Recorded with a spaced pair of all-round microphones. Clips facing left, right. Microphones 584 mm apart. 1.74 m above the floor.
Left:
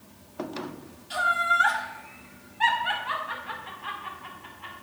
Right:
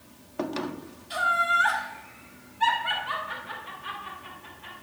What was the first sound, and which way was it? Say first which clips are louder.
Laughter: even; 60° left (ahead or behind).